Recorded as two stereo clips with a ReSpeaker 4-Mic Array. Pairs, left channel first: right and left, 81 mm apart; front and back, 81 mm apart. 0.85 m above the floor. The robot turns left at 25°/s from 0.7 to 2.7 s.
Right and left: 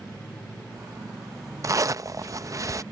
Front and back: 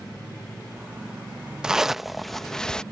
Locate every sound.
1.6 s a zipper: 105° left; by 2.8 s 80° left